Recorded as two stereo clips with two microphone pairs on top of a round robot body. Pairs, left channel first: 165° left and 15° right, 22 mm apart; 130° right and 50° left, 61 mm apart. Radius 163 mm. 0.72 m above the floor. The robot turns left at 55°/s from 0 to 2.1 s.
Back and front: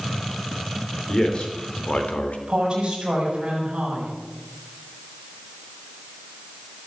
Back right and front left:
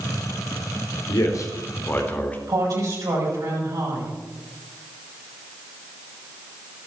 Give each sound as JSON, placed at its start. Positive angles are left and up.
{"t": 1.1, "sound": "a man speaking", "azimuth_deg": -140, "distance_m": 3.5}
{"t": 2.5, "sound": "a woman speaking", "azimuth_deg": 35, "distance_m": 7.5}